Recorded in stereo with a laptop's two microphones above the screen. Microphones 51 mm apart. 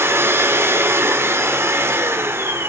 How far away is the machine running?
About 0.9 m.